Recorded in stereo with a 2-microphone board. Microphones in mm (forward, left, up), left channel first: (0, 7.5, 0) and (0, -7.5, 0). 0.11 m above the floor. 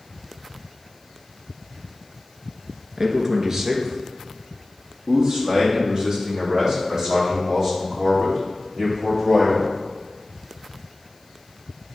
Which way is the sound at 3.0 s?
20° right (ahead or behind).